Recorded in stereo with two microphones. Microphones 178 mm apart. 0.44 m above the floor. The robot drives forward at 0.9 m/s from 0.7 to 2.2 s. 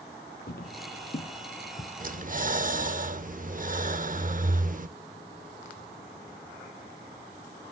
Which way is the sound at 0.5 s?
65° left (ahead or behind).